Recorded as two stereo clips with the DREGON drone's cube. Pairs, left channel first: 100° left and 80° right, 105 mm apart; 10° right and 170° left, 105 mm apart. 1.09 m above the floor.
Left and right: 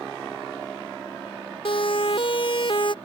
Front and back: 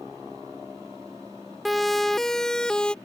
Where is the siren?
80° left; by 3.0 s 70° left.